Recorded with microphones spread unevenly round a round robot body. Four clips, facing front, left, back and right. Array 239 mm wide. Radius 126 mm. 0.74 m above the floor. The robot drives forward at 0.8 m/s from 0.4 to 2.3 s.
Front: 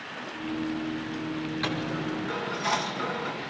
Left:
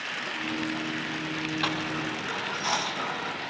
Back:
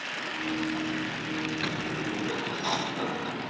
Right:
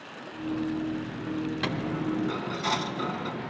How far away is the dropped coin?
About 1.2 m.